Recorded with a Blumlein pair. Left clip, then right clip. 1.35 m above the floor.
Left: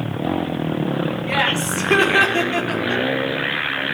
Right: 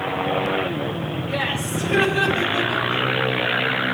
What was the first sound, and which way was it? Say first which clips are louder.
Laughter: left 5 dB; 55° left.